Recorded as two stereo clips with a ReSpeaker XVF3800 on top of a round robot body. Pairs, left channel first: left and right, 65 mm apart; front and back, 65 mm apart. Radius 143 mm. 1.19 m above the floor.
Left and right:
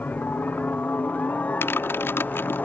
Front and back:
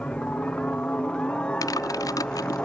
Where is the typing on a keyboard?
35° left.